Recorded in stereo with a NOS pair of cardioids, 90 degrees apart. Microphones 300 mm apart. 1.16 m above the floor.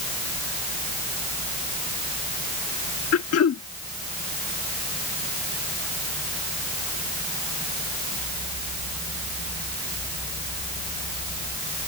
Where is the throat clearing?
55° left.